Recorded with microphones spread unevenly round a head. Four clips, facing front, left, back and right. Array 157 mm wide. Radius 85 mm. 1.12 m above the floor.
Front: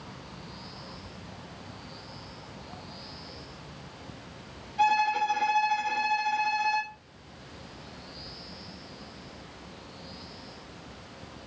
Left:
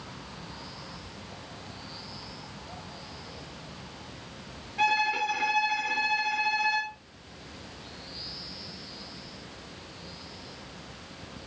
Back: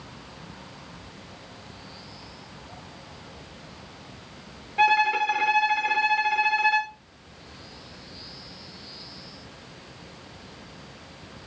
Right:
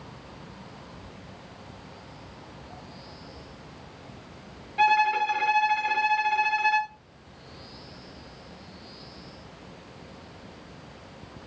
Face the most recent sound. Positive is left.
turn(degrees=-170)